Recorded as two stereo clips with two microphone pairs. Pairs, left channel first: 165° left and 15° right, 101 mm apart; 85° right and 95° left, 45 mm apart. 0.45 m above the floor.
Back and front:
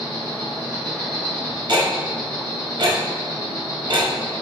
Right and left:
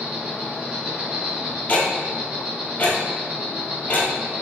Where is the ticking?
45° right, 0.6 m.